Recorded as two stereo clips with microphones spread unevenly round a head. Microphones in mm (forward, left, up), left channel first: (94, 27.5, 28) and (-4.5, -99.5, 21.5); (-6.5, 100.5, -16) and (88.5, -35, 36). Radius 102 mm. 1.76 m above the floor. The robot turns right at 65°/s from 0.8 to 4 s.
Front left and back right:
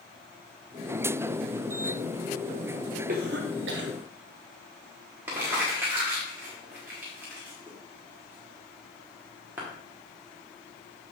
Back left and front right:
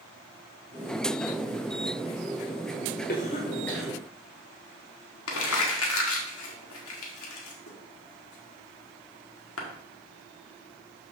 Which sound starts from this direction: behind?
A cough, at 3.1 s.